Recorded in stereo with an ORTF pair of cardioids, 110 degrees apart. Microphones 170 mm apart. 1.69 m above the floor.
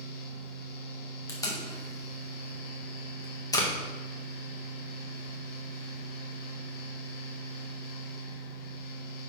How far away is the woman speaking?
No woman speaking in this recording.